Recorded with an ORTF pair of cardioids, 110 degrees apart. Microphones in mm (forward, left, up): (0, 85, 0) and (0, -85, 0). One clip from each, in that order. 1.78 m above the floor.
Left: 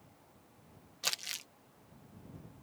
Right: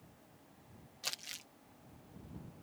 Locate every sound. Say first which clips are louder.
1.0 s crumpling: left 6 dB; 35° left